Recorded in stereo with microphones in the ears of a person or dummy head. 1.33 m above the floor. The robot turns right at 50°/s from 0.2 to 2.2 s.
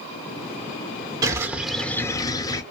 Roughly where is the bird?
Ahead right.